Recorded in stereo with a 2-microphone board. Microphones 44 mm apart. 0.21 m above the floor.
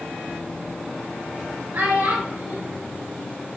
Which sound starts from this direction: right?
A child speaking, at 1.7 s.